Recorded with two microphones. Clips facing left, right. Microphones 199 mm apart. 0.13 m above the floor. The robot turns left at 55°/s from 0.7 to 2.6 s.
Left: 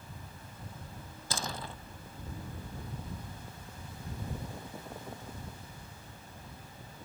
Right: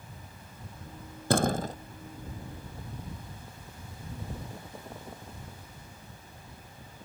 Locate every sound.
1.3 s a door slam: 60° right (ahead or behind); by 1.8 s 40° right (ahead or behind)